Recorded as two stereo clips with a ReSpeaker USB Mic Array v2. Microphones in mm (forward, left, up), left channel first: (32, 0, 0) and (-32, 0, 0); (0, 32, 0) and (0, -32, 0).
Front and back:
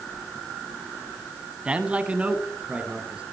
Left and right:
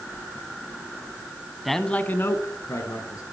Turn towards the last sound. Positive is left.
turn(degrees=110)